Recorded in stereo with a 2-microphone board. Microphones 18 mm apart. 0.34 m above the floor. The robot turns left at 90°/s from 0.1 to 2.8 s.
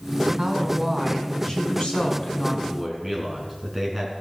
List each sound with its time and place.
0.4 s a woman speaking: 115° right, 3 m; by 2.5 s 50° left, 3 m
2.6 s a man speaking: 10° left (ahead or behind), 3.5 m; by 4.1 s 5° right (ahead or behind), 3.5 m